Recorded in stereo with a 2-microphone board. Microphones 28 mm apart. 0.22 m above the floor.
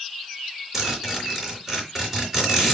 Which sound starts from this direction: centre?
A zipper, at 0.7 s.